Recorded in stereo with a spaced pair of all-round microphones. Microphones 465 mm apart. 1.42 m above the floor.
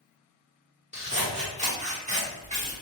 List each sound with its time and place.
0.9 s scissors: 15° right (ahead or behind), 1.2 m